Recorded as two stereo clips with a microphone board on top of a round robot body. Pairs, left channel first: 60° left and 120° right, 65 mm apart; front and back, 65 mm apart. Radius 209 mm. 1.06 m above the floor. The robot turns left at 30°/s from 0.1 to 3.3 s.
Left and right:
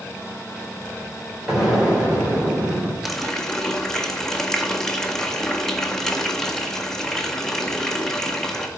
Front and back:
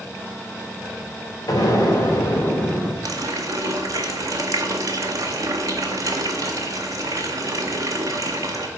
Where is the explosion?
35° right, 3 m; by 2.9 s 80° right, 3 m.